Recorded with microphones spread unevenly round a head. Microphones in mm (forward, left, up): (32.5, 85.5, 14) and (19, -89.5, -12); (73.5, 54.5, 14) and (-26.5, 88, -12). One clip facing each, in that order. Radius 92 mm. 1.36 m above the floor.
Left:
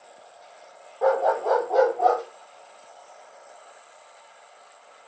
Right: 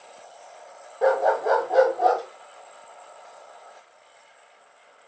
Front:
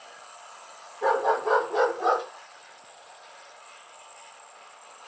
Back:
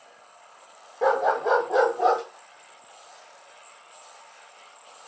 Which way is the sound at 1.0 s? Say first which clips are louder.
Right 1 dB, back 2 dB; 170° right.